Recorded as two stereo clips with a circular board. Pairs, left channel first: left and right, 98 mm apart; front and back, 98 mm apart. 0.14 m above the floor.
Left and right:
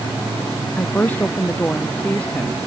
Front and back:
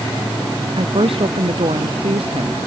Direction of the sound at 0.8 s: 160° left.